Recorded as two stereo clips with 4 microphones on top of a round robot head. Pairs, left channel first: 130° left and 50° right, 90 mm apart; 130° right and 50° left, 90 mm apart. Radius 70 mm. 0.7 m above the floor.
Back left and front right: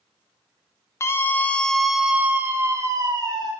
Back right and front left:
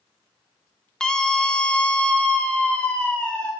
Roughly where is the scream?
Behind left.